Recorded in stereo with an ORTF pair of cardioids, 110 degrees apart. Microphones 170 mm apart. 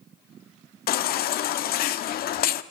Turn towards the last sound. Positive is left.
turn(degrees=65)